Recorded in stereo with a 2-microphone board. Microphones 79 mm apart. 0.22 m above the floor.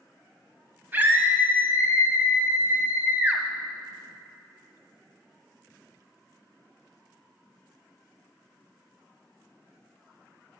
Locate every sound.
0.9 s a scream: 25° right (ahead or behind), 1.2 m